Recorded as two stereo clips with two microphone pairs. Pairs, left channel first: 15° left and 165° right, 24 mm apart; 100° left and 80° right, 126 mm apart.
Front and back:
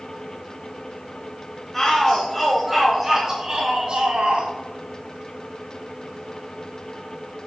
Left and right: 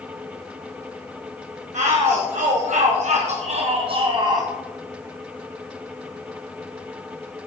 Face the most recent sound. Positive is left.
turn(degrees=-140)